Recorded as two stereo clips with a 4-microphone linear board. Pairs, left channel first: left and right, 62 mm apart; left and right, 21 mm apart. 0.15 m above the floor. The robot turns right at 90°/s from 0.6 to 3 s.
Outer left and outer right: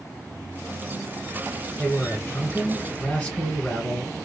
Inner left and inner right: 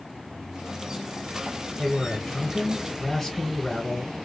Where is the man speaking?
30° left, 1.5 m; by 4.2 s 140° left, 1.5 m.